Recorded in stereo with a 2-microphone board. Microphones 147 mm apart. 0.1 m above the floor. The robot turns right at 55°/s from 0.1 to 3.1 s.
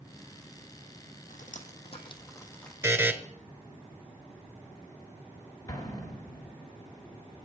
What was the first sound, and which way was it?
Dripping, 75° left (ahead or behind).